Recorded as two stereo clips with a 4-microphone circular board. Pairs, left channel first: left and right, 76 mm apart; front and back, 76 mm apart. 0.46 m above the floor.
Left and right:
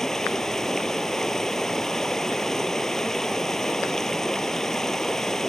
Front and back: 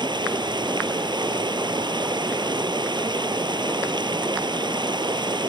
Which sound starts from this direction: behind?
Running water, at 0.0 s.